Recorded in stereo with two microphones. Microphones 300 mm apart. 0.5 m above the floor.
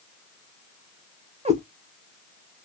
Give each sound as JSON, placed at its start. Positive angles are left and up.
{"t": 1.4, "sound": "a cat meowing", "side_deg": -20, "distance_m": 0.9}